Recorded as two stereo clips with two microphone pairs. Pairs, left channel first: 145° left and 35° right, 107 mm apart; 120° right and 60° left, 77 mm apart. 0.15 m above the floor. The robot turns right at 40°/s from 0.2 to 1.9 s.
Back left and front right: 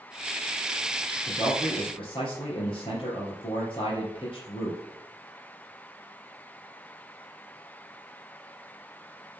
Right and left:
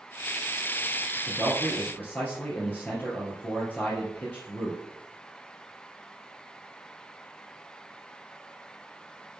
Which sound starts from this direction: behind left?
A man speaking, at 1.3 s.